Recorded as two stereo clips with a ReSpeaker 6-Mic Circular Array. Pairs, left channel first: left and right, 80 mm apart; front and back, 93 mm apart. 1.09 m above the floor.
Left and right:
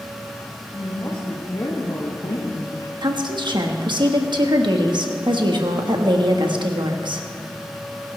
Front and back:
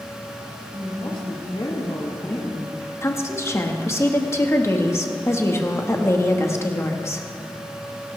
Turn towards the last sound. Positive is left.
turn(degrees=-60)